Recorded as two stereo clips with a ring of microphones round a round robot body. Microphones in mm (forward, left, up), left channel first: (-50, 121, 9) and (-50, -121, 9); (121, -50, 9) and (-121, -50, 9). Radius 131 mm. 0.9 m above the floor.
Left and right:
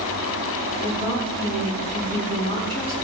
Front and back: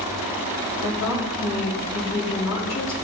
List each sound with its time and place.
0.8 s a woman speaking: 40° left, 5 m